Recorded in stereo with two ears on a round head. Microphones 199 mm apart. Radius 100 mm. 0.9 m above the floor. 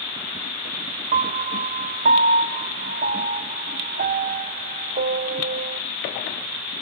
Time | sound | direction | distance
1.1 | a piano | 35° right (ahead or behind) | 0.6 m